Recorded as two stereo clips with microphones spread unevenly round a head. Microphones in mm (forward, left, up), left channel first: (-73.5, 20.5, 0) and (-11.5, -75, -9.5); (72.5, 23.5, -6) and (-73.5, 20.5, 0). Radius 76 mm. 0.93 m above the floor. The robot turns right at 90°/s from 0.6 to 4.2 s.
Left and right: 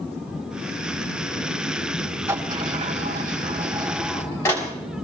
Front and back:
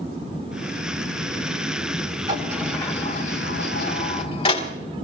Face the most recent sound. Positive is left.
turn(degrees=50)